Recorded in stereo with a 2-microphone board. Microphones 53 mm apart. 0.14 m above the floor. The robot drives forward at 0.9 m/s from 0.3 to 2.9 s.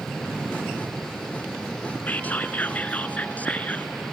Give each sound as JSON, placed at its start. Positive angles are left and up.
{"t": 2.1, "sound": "whispering", "side_deg": 35, "distance_m": 1.5}